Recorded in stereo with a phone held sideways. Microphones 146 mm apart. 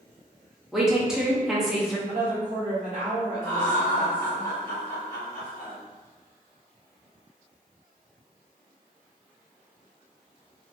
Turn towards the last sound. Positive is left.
turn(degrees=-65)  # may be behind; listen again after turning